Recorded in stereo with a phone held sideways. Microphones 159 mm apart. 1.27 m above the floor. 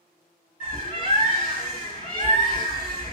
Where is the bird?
55° left (ahead or behind), 1.7 m.